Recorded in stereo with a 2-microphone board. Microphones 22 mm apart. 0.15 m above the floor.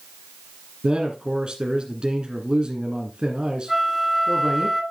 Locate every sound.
0.8 s a man speaking: 45° right (ahead or behind), 2 m
3.7 s a flute: 10° right (ahead or behind), 1.8 m